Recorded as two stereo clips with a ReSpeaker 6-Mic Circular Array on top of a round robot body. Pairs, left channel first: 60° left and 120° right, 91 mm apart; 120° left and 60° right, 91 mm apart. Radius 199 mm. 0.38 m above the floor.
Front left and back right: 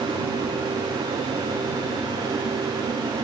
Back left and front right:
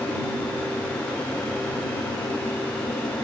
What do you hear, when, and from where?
Only background noise.